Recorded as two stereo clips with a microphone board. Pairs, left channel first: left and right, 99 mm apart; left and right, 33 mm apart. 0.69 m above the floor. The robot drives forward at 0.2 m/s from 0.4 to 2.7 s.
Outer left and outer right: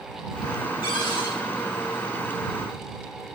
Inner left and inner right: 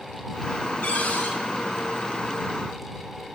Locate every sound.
0.8 s a cupboard door: 60° left (ahead or behind), 2.5 m; by 1.4 s 55° left (ahead or behind), 2.5 m